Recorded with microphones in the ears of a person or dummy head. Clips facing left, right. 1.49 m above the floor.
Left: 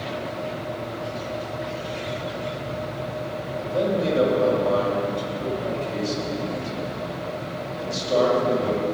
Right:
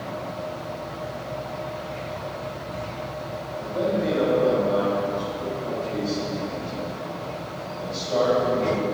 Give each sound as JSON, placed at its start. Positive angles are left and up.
{"t": 3.6, "sound": "a man speaking", "side_deg": 55, "distance_m": 6.5}